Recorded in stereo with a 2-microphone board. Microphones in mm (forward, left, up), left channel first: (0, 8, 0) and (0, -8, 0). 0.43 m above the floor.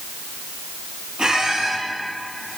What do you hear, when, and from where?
1.2 s a squeak: 65° right (ahead or behind), 4 m